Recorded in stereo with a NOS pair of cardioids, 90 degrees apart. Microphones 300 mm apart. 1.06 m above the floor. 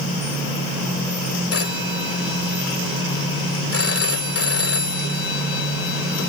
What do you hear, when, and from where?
1.5 s a phone ringing: 45° left